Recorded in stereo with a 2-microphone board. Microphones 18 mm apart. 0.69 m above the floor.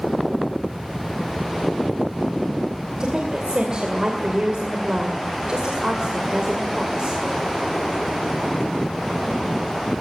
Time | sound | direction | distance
3.0 | a woman speaking | 55° right (ahead or behind) | 2.5 m